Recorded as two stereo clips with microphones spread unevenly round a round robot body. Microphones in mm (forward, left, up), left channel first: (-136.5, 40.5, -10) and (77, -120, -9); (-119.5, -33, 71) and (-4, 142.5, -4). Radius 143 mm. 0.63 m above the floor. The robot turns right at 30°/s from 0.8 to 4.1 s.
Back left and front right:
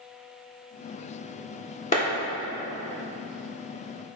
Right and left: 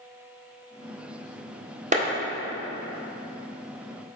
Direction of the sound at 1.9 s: 80° left.